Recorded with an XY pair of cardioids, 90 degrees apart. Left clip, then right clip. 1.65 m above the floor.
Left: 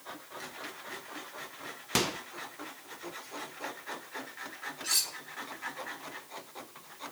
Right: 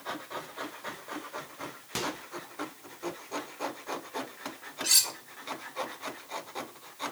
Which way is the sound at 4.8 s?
50° right.